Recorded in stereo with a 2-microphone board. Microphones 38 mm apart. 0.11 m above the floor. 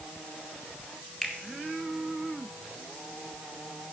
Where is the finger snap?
25° left (ahead or behind), 2.5 m.